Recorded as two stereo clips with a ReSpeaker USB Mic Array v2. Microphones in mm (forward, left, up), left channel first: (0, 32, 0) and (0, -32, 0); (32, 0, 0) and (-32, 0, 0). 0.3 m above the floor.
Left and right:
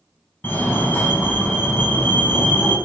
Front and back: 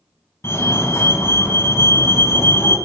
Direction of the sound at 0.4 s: 35° left.